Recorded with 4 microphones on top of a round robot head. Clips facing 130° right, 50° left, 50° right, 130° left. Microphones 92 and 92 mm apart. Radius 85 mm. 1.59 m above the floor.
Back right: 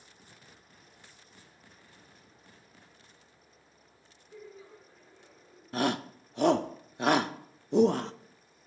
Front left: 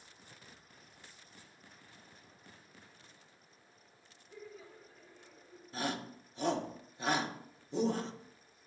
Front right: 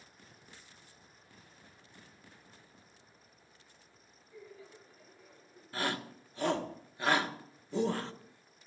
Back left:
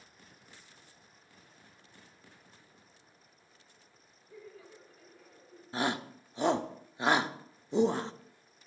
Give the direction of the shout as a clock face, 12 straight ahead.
5 o'clock.